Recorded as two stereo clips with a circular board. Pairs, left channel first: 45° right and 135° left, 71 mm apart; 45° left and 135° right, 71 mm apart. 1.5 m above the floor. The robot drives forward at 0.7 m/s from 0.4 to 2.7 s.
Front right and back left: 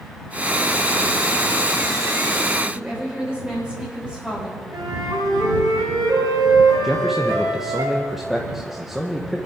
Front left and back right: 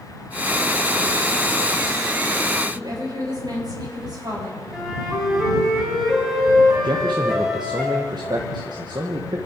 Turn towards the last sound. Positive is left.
turn(degrees=-140)